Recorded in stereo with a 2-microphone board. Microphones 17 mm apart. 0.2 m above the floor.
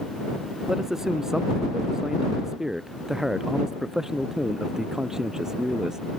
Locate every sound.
0.7 s a man speaking: 30° right (ahead or behind); by 6.0 s 35° right (ahead or behind)